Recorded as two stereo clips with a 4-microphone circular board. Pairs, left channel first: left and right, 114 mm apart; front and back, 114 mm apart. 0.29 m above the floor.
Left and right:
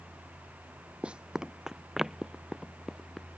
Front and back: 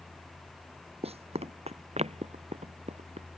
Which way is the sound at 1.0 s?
170° right.